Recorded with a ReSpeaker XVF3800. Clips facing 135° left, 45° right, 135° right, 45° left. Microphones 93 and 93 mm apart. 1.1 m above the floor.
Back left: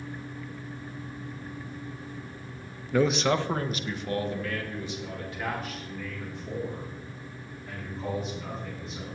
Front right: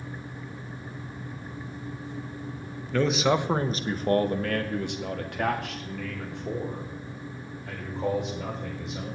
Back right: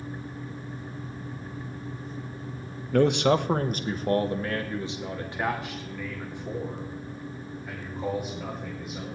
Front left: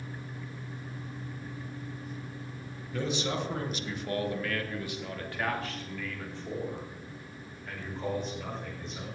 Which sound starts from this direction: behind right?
A man speaking, at 2.9 s.